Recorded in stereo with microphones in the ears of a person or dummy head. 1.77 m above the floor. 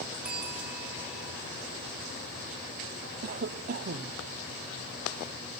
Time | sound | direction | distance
0.2 | a bell | 5° right (ahead or behind) | 1.9 m
3.2 | a cough | 50° right (ahead or behind) | 0.9 m